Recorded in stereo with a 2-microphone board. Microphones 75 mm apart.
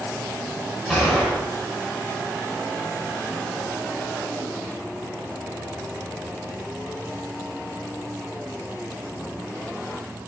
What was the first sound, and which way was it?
A gunshot, 5° left (ahead or behind).